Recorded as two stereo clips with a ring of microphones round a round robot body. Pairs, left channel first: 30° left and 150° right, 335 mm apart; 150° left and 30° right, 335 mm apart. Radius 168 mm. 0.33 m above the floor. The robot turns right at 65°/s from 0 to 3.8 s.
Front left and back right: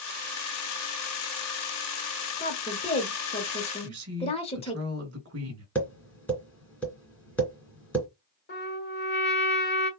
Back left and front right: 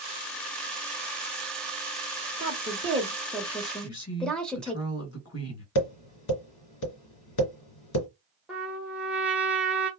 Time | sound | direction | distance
2.4 | a woman speaking | 25° right | 0.8 m
3.8 | a woman speaking | straight behind | 1.3 m
5.8 | tapping | 115° left | 2.5 m
8.5 | a trumpet | 55° left | 1.1 m